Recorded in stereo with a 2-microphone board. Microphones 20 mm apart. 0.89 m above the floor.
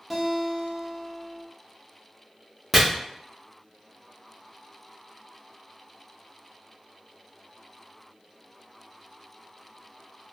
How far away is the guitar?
About 0.6 m.